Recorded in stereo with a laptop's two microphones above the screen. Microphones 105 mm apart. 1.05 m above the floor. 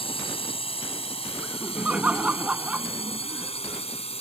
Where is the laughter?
15° right (ahead or behind).